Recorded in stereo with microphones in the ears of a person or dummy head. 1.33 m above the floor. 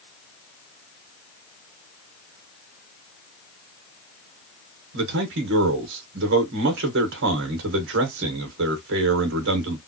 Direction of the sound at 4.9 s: 60° right (ahead or behind).